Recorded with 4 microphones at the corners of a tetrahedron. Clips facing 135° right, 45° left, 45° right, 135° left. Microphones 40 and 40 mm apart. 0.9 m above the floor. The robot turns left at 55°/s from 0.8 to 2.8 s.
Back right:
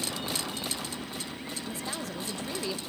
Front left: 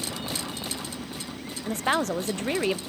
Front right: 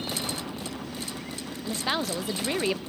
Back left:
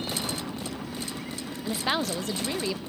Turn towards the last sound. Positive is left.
turn(degrees=0)